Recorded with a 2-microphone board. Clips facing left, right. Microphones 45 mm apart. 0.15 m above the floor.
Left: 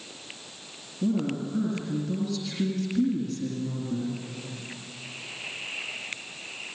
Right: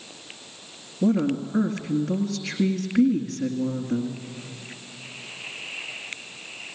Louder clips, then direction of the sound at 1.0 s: Right 5 dB; 50° right (ahead or behind).